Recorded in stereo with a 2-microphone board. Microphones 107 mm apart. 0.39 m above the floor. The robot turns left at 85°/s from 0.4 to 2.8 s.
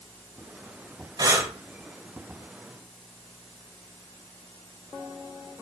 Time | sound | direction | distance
1.2 | breathing | 40° right (ahead or behind) | 0.7 m